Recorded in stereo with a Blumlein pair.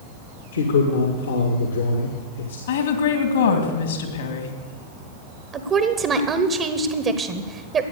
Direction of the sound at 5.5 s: 25° right.